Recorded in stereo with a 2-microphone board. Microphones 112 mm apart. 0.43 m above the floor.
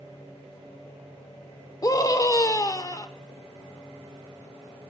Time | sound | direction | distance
1.8 | a scream | 30° left (ahead or behind) | 0.9 m